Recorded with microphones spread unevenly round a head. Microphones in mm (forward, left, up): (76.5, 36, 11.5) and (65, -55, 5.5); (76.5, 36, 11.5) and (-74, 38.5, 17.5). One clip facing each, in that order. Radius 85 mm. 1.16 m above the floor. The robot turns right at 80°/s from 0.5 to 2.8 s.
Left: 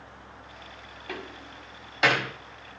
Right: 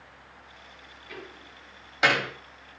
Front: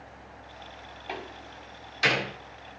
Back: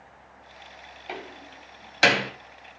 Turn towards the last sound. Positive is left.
turn(degrees=-125)